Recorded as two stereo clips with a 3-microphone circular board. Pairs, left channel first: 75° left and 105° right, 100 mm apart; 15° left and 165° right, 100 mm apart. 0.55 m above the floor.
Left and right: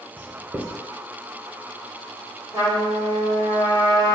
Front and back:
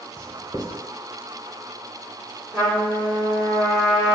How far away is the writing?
About 0.6 m.